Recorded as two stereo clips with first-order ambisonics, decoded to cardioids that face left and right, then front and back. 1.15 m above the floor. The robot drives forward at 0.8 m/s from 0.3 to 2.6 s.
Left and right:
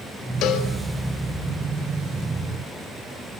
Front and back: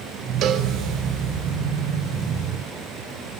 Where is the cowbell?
130° left, 1.4 m; by 0.7 s 135° left, 1.6 m.